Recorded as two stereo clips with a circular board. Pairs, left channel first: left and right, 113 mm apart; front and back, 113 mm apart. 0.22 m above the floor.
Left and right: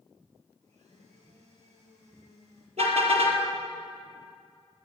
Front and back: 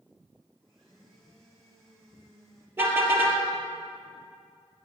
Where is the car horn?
110° right, 3 m.